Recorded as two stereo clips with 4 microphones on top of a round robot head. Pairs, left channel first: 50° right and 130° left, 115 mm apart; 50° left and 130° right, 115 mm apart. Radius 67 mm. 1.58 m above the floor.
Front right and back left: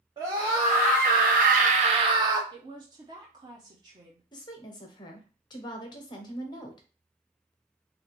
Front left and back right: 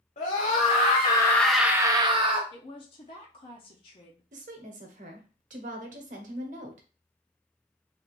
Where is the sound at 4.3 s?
105° right, 0.9 m.